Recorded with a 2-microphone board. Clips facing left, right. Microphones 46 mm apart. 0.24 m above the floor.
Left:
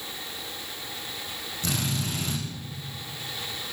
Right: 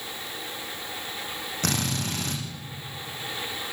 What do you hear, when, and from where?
1.6 s a drill: 60° right (ahead or behind), 9 m